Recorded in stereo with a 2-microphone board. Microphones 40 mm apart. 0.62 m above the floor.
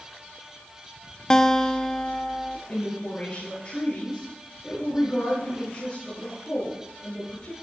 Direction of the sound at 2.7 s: 40° left (ahead or behind).